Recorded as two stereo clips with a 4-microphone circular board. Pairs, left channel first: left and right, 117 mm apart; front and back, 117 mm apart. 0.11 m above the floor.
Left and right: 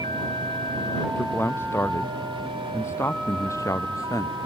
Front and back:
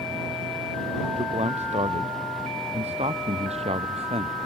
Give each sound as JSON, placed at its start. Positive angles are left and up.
{"t": 1.2, "sound": "a man speaking", "azimuth_deg": 160}